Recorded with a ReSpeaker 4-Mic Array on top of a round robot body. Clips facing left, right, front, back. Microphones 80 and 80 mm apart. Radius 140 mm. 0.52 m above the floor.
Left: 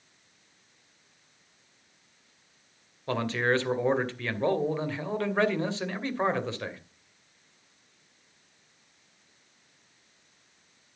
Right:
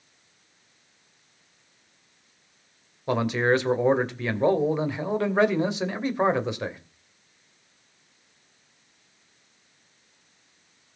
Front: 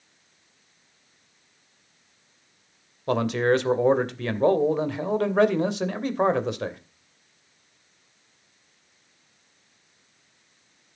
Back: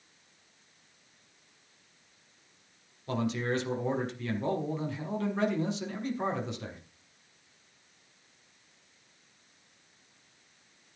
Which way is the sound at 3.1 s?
15° right.